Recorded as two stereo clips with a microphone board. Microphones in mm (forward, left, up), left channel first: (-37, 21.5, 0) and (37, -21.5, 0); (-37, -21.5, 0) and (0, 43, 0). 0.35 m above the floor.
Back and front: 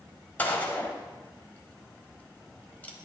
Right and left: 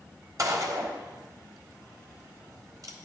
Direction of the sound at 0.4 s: 85° left.